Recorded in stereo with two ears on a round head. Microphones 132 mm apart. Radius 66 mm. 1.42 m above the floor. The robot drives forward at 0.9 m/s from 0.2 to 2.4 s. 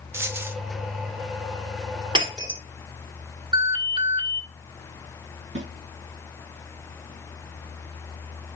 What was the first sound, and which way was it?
A dropped coin, 20° right (ahead or behind).